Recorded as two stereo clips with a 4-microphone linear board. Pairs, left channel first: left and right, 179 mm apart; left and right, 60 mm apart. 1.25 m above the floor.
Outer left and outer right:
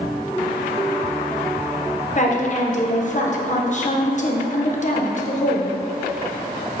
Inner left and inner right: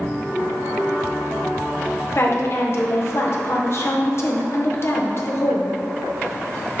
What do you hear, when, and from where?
2.1 s a woman speaking: 45° left (ahead or behind), 0.9 m